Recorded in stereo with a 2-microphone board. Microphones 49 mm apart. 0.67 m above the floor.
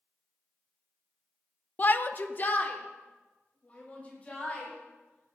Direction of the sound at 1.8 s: 35° left (ahead or behind).